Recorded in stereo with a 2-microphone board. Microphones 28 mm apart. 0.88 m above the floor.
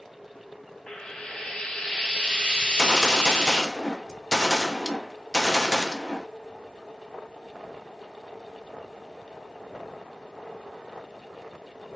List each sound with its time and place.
0.9 s frying: 40° left (ahead or behind), 1.9 m
2.6 s a gunshot: 20° left (ahead or behind), 0.6 m